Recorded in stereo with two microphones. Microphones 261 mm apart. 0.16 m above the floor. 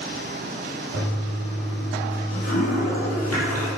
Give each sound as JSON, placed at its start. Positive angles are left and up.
{"t": 0.9, "sound": "a toilet flushing", "side_deg": 65, "distance_m": 5.0}